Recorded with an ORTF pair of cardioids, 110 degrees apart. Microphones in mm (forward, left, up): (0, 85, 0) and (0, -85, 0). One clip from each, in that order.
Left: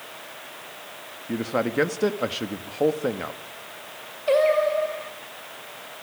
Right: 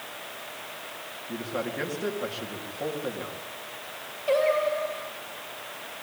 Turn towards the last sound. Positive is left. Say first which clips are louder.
# left 4 dB
turn(degrees=30)